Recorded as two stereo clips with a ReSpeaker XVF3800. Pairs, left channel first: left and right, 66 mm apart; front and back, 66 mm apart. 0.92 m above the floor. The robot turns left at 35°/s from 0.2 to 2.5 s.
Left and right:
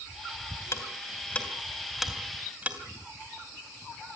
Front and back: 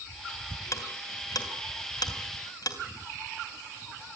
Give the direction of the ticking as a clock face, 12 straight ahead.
11 o'clock.